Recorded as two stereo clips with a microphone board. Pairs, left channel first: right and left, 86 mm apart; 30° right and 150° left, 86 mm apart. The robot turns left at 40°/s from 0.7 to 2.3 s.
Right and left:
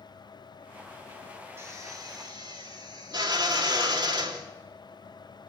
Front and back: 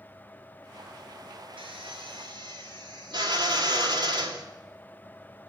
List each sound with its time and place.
1.6 s a drill: 150° left, 3 m; by 4.5 s 120° left, 3 m